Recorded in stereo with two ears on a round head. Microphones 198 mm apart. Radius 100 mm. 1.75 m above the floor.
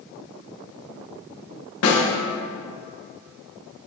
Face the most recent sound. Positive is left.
turn(degrees=75)  # may be behind; listen again after turning